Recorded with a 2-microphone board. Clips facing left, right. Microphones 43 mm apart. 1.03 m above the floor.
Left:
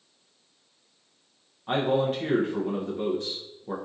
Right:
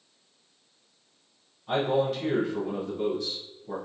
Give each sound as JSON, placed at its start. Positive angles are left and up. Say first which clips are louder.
{"t": 1.7, "sound": "a man speaking", "louder": "left 1 dB", "side_deg": 40, "distance_m": 0.6}